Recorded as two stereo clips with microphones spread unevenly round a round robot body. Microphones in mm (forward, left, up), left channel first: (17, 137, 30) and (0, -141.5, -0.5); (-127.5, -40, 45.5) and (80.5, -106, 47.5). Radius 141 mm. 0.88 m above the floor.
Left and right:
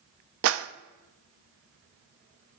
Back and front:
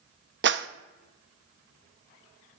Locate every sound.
0.4 s a clap: 55° right, 0.8 m